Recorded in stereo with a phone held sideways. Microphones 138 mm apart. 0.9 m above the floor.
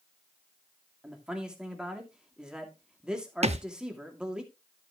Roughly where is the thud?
Right.